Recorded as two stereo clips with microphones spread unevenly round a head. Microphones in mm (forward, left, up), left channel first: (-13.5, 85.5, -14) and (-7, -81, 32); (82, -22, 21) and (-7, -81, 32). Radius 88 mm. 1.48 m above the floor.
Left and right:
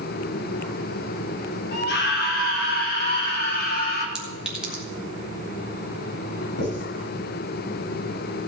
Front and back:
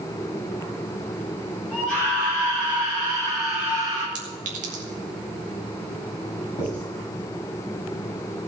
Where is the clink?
170° right, 2.5 m.